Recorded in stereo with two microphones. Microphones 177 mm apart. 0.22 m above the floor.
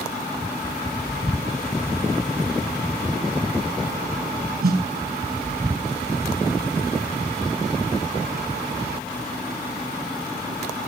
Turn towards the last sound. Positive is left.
turn(degrees=-60)  # may be behind; listen again after turning